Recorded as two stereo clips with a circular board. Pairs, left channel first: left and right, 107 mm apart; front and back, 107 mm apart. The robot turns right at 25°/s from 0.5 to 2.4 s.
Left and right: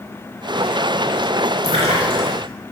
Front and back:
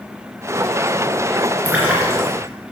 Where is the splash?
105° right, 3 m; by 2.4 s 90° right, 3 m.